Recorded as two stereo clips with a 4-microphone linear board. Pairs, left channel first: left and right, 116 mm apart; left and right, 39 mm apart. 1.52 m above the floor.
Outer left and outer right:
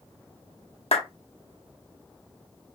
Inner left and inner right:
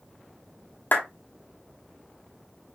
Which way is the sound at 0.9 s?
60° left (ahead or behind).